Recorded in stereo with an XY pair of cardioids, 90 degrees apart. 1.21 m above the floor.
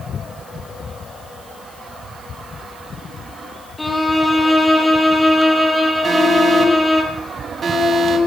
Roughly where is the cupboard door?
No cupboard door in this recording.